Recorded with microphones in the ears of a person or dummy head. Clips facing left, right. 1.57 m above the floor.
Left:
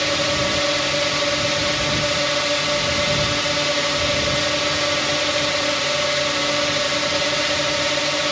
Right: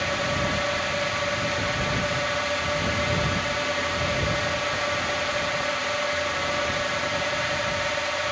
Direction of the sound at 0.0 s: 50° left (ahead or behind).